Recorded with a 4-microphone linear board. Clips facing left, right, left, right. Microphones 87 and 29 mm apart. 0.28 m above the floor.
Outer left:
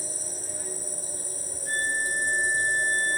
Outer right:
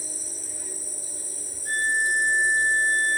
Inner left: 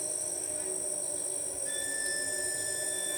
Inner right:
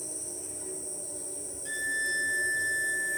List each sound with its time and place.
0.0 s an insect: 55° left (ahead or behind), 0.8 m
1.6 s a violin: 55° right (ahead or behind), 2 m